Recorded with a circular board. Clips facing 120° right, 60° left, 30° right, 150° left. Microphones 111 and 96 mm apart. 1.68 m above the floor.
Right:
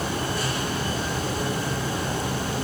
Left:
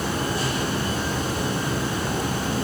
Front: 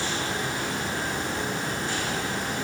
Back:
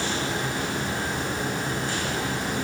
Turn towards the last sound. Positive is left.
turn(degrees=60)